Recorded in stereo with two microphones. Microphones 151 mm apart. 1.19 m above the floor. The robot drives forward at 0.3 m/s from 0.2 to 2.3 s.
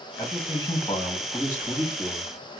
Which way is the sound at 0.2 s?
30° left (ahead or behind).